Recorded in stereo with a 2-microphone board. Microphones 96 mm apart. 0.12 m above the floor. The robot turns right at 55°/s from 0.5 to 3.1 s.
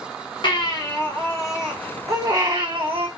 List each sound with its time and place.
0.4 s a baby crying: 125° left, 1.8 m; by 3.1 s 90° right, 1.8 m